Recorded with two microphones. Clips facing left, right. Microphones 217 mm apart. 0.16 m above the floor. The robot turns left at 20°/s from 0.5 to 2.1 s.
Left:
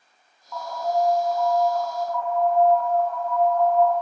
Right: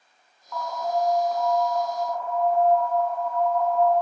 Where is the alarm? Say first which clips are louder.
Left 2 dB; 10° left, 1.1 m; by 3.9 s 20° right, 1.1 m.